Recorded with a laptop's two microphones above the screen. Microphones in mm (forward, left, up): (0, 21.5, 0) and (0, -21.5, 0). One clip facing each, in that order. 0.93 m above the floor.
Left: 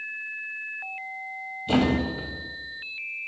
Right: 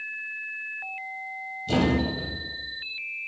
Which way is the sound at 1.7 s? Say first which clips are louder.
Left 1 dB; 25° left (ahead or behind).